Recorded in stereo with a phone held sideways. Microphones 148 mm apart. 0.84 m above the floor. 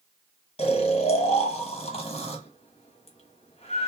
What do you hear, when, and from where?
0.6 s snoring: 45° left (ahead or behind), 1.1 m